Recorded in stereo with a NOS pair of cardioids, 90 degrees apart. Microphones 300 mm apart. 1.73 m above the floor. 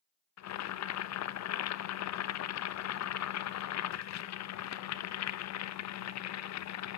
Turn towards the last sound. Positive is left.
turn(degrees=65)